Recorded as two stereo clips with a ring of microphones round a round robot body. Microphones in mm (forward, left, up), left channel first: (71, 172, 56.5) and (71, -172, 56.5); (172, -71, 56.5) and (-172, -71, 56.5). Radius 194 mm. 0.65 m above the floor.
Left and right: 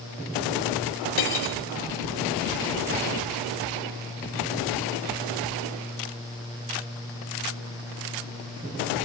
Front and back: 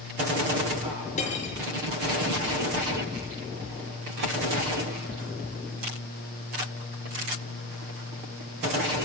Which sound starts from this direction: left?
Cutlery clinking, at 1.2 s.